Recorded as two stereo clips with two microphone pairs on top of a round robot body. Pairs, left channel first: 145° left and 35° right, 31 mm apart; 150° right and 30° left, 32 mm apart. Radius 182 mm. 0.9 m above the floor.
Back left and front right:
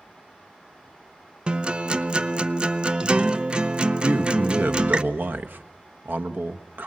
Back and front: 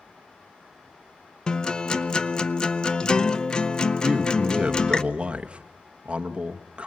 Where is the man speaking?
25° right, 1.2 m.